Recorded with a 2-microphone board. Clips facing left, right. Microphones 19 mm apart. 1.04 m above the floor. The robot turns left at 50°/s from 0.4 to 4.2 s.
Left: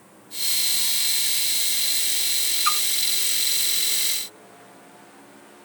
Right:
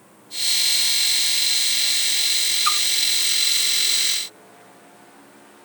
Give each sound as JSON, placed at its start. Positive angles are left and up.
{"t": 2.6, "sound": "a splash", "side_deg": 5, "distance_m": 1.2}